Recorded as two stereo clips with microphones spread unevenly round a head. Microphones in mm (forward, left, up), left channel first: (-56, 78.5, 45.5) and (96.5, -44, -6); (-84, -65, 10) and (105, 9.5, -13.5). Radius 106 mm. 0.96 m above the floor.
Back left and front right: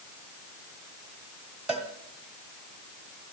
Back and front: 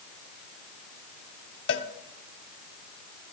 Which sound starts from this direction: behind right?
A cowbell, at 1.7 s.